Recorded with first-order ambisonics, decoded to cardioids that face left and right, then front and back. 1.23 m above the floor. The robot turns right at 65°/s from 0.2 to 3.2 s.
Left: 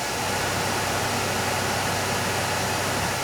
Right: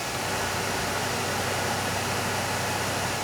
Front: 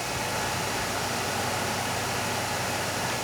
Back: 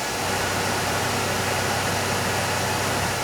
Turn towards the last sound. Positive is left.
No sound to turn to.